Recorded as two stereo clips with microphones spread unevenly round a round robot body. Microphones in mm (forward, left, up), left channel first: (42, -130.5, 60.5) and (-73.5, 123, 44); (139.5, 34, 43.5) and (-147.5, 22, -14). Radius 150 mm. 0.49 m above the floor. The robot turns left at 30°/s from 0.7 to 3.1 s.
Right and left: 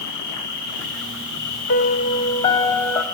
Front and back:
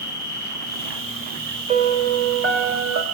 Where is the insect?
100° right, 5 m; by 3.1 s 170° right, 5 m.